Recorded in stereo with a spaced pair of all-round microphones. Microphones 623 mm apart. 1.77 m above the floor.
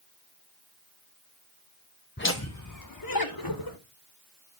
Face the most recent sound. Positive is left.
turn(degrees=35)  # may be behind; listen again after turning